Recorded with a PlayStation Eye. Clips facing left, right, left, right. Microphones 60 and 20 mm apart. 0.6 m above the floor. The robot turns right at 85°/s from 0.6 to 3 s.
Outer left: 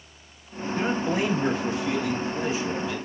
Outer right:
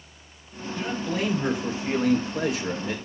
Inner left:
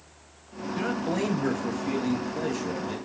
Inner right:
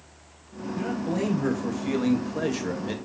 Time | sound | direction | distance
0.8 | a man speaking | 125° left | 3 m